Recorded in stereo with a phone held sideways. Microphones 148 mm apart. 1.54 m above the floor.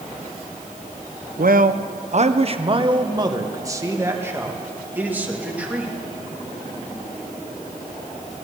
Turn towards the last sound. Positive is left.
turn(degrees=-10)  # may be behind; listen again after turning